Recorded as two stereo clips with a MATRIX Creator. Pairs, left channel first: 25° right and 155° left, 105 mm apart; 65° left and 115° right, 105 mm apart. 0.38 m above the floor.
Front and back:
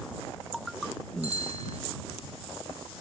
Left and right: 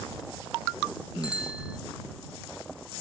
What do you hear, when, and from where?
1.2 s a bicycle bell: 165° left